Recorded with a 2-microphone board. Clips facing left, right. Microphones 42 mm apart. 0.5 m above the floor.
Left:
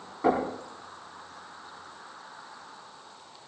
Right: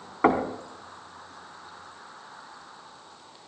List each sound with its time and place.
0.2 s knocking: 65° right (ahead or behind), 2.5 m